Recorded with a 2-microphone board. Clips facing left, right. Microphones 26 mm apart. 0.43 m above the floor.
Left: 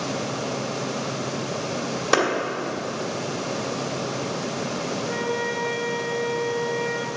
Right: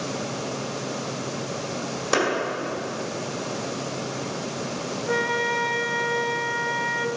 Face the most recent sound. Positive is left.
turn(degrees=-30)  # may be behind; listen again after turning